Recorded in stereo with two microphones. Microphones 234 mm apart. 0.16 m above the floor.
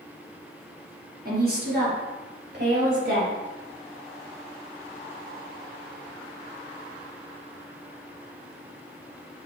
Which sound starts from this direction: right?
A woman speaking, at 1.2 s.